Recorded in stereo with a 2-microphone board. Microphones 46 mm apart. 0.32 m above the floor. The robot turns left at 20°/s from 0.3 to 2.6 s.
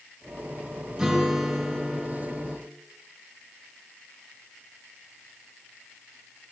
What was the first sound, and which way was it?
A guitar, 160° right.